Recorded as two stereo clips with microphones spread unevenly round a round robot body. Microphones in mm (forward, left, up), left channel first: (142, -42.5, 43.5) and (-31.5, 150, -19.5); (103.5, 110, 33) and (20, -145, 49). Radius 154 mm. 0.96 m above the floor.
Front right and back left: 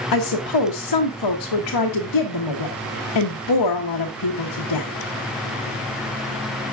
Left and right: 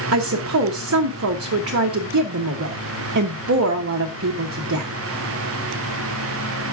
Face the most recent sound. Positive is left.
turn(degrees=-70)